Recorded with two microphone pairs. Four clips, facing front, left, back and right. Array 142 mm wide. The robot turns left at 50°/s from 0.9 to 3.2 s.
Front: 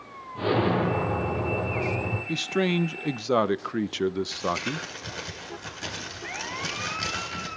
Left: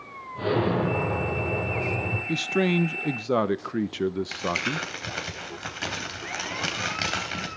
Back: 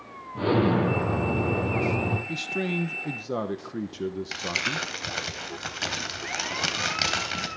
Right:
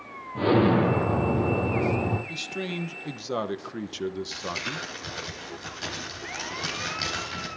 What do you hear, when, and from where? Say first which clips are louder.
0.3 s an explosion: right 4 dB, back 1 dB; 90° right, 9 m; by 2.2 s 155° right, 9 m
2.3 s a man speaking: left 9 dB, front 4 dB; 60° left, 0.8 m; by 4.9 s 15° left, 0.8 m
4.3 s crumpling: left 5 dB, front 3 dB; 150° left, 3.5 m